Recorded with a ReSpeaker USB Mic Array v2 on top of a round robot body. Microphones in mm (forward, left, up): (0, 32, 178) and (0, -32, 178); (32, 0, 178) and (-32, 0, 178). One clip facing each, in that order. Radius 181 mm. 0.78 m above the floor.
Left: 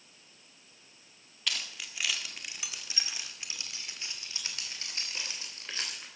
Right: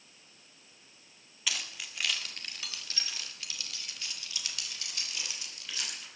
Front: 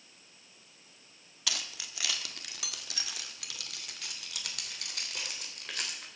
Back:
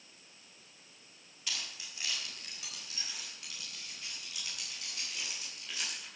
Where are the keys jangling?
5° right, 1.6 m; by 6.0 s 35° left, 3.5 m.